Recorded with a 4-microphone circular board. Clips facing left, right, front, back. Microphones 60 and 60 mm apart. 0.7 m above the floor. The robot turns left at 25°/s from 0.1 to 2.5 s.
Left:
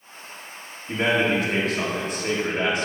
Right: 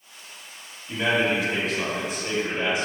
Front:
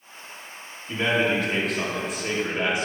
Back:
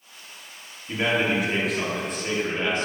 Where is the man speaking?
115° left, 1.7 m; by 2.9 s 75° left, 1.7 m.